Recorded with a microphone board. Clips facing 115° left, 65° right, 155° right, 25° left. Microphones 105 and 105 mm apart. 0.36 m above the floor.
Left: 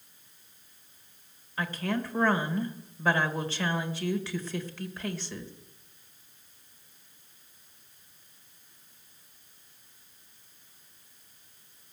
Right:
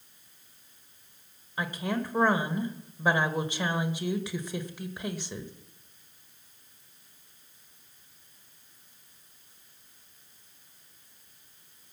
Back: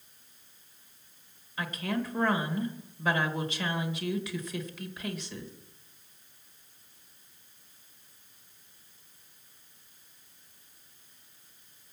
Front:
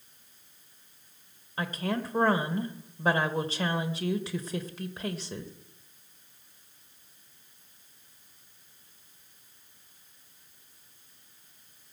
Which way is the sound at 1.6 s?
Straight ahead.